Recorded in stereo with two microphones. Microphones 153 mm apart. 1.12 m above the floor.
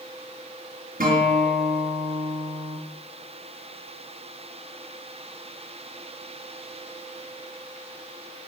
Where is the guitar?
70° right (ahead or behind), 3.5 m.